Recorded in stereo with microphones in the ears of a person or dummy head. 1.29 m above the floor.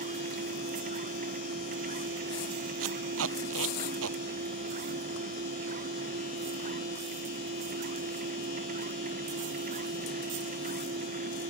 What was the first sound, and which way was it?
A machine running, 50° right (ahead or behind).